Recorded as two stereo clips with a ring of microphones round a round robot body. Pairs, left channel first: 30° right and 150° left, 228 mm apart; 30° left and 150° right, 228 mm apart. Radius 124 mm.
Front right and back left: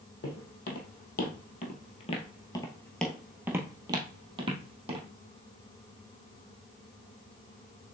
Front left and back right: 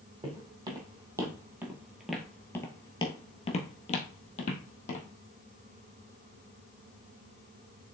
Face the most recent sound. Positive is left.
turn(degrees=85)